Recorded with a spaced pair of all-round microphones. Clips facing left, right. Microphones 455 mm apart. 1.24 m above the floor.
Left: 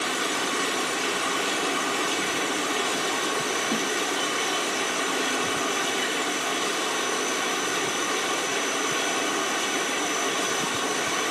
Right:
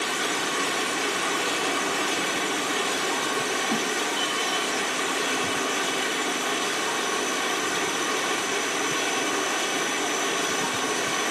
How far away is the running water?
About 1.8 m.